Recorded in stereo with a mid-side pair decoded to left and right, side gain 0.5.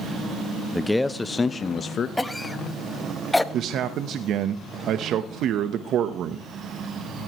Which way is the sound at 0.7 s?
Straight ahead.